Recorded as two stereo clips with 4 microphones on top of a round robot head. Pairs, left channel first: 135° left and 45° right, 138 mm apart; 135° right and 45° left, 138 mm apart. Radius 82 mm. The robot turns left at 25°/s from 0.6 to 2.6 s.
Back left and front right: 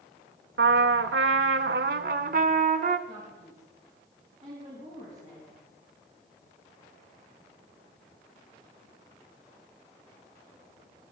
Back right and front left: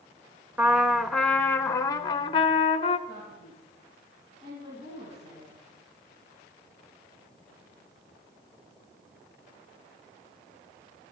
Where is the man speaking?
Straight ahead, 4.5 m.